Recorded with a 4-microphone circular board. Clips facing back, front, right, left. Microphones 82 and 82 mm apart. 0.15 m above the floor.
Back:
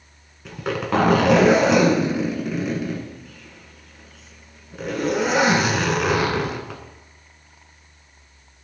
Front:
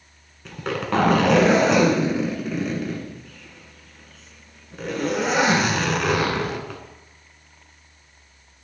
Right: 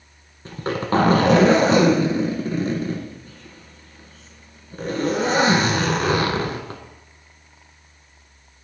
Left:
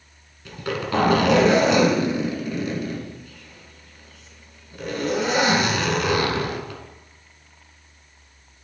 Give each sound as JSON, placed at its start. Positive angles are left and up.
{"t": 0.5, "sound": "a zipper", "azimuth_deg": -95, "distance_m": 1.3}